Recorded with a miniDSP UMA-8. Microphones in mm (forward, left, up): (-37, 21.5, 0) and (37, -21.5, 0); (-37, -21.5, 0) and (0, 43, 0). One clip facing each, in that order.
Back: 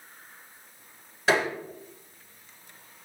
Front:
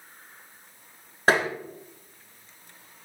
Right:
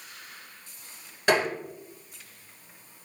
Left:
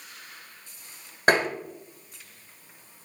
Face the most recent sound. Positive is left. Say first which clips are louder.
# front 2 dB, left 2 dB
turn(degrees=15)